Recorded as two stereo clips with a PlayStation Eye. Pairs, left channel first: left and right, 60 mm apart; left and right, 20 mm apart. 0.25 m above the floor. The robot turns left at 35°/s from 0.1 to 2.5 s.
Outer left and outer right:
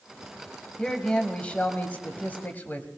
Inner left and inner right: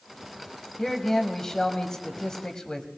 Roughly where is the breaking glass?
I don't hear breaking glass.